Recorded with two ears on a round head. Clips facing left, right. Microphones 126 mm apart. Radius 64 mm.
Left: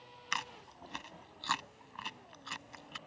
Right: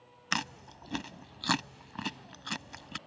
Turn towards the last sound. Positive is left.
turn(degrees=-70)  # may be behind; listen again after turning